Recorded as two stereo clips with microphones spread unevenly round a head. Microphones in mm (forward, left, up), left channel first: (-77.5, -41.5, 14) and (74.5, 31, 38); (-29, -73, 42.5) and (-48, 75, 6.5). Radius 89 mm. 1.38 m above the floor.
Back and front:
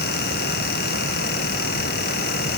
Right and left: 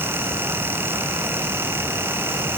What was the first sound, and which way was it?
Only background noise.